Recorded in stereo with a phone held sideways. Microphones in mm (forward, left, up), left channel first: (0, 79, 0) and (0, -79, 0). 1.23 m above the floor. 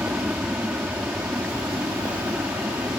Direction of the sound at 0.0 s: 10° right (ahead or behind).